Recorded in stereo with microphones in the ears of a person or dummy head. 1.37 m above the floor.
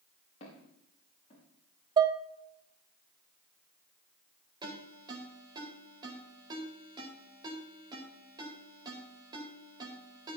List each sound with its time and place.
0.4 s footsteps: 35° left (ahead or behind), 5.5 m
2.0 s dishes clattering: 30° right (ahead or behind), 0.7 m
4.6 s a ringtone: 25° right (ahead or behind), 4 m